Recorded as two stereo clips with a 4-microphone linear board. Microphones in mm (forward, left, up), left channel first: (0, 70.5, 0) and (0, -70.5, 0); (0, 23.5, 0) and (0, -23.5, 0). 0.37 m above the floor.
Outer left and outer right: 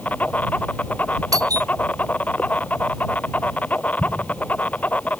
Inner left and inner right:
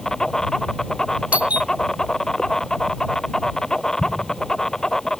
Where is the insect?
10° left (ahead or behind).